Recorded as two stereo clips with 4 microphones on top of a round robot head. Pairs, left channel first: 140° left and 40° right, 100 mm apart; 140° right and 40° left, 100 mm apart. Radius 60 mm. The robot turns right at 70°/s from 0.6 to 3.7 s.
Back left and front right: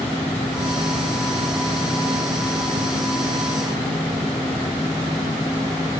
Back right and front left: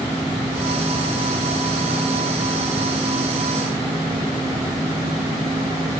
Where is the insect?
175° right, 5.5 m; by 6.0 s 40° left, 5.5 m.